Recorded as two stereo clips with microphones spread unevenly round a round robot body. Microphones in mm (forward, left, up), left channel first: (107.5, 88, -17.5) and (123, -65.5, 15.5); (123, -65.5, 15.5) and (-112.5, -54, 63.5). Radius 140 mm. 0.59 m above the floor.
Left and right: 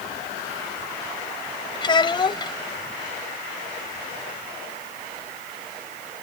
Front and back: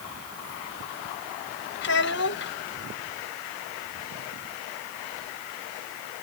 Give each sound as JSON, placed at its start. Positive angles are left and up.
{"t": 1.8, "sound": "a child speaking", "azimuth_deg": 35}